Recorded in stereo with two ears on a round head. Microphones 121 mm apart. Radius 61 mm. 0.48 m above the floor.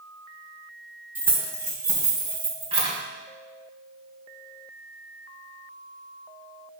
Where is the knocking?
No knocking in this recording.